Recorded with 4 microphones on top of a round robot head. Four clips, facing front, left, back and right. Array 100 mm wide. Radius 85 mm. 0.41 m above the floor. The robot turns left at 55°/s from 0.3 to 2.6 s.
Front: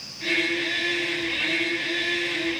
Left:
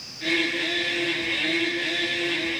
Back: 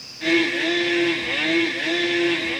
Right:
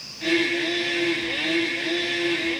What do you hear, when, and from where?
Only background noise.